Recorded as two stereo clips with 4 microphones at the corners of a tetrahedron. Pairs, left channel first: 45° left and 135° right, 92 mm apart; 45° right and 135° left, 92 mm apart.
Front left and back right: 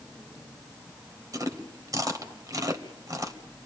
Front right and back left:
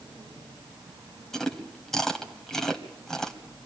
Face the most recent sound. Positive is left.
turn(degrees=-130)